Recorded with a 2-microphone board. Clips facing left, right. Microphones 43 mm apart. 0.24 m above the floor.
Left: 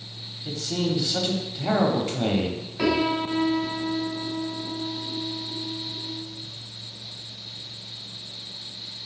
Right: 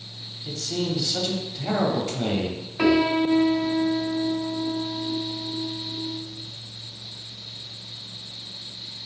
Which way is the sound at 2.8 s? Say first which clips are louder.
Right 4 dB; 25° right (ahead or behind).